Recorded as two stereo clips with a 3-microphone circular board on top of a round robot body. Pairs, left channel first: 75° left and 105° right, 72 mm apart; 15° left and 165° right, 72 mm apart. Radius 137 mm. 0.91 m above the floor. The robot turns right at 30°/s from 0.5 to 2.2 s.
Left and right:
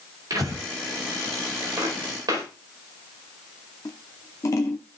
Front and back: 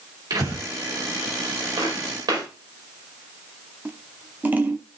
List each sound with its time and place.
0.3 s breathing: 140° right, 5 m; by 0.7 s 135° right, 5 m
1.8 s footsteps: 150° right, 6 m; by 2.5 s 135° right, 6 m
3.9 s scissors: 130° left, 0.7 m